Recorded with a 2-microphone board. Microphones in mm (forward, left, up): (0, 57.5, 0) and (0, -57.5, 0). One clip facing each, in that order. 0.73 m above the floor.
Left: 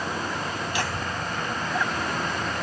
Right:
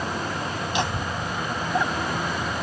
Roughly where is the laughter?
Right.